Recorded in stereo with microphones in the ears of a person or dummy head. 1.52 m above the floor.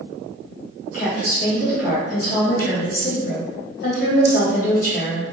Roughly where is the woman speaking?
Left.